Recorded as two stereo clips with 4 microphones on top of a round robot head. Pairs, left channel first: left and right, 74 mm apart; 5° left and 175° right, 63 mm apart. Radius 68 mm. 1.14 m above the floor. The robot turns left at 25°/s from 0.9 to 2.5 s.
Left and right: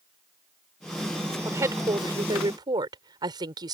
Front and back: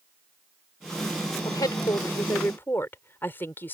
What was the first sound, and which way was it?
A woman speaking, 35° right.